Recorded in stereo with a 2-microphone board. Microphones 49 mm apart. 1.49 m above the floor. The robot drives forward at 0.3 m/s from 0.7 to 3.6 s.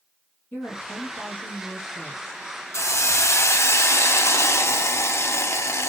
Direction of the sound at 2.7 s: 75° left (ahead or behind).